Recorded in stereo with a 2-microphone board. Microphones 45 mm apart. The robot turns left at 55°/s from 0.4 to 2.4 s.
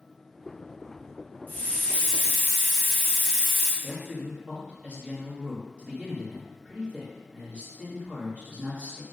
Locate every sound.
1.5 s a hiss: 50° left, 1.0 m; by 3.7 s straight ahead, 1.0 m
3.8 s a man speaking: 30° right (ahead or behind), 1.2 m